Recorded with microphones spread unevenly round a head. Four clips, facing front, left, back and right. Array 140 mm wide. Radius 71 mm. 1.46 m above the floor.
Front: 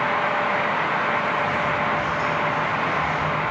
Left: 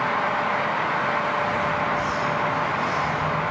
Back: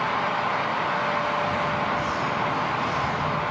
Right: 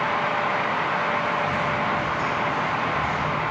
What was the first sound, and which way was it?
Footsteps, 135° right.